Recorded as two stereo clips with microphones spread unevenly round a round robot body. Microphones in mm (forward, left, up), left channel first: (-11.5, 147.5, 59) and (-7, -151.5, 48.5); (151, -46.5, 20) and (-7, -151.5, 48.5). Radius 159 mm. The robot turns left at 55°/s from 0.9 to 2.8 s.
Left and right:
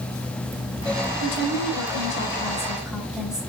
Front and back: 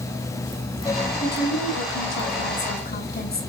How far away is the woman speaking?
About 3.5 m.